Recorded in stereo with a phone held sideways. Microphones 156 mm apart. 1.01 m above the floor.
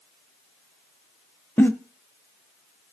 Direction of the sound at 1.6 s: 15° left (ahead or behind).